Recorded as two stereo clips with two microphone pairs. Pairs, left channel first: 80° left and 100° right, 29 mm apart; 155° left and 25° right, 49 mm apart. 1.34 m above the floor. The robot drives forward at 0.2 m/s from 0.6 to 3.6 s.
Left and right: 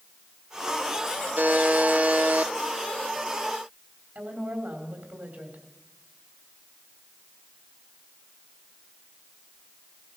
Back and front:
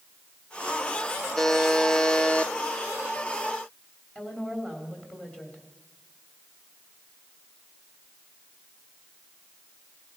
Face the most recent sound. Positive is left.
turn(degrees=-130)